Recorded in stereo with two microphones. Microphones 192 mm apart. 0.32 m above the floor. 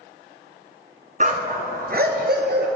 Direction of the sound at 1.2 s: 40° right (ahead or behind).